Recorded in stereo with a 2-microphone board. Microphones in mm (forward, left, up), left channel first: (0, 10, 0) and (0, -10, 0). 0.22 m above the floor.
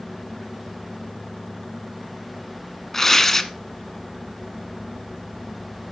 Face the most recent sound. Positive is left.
turn(degrees=20)  # may be behind; listen again after turning